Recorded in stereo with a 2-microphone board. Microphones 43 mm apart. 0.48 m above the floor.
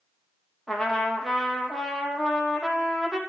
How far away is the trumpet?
About 2.5 m.